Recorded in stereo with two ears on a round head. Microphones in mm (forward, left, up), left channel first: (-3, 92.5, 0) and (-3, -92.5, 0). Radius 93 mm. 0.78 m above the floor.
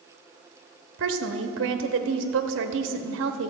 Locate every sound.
1.0 s a woman speaking: 65° right (ahead or behind), 0.9 m